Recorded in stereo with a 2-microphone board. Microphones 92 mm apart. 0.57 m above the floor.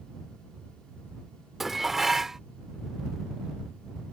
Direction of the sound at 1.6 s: 5° right (ahead or behind).